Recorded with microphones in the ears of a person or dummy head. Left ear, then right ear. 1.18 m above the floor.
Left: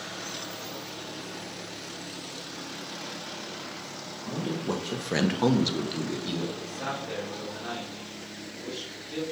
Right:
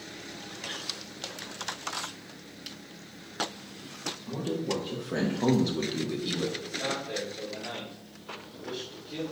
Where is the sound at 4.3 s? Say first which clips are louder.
Left 1 dB; 60° left (ahead or behind), 1.1 m; by 6.5 s 10° right (ahead or behind), 1.1 m.